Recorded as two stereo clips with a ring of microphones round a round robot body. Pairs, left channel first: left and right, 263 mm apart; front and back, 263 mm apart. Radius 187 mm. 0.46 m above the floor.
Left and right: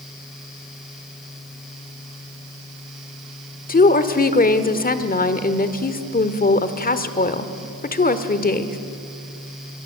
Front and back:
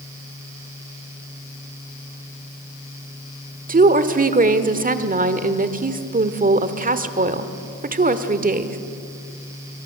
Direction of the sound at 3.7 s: 135° left.